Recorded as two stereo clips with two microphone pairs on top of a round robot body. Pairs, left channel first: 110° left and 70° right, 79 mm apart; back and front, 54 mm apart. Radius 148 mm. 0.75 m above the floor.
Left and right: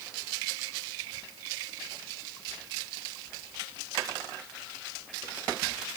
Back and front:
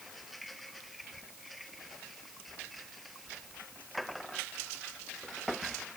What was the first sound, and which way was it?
Only background noise.